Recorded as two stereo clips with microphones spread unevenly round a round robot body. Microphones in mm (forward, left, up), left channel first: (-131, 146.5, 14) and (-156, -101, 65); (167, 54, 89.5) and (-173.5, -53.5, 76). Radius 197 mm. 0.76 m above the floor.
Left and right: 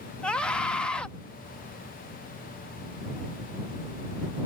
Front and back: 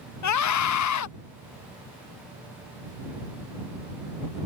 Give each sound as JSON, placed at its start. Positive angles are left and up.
{"t": 0.2, "sound": "a scream", "azimuth_deg": 10}